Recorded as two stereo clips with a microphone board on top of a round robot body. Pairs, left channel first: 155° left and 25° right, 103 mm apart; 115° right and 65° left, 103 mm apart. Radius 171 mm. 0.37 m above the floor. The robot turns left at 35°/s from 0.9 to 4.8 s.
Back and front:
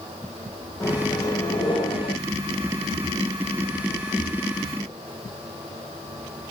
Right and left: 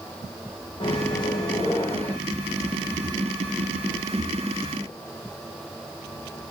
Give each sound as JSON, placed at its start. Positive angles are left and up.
{"t": 0.8, "sound": "a microwave", "azimuth_deg": -145, "distance_m": 1.4}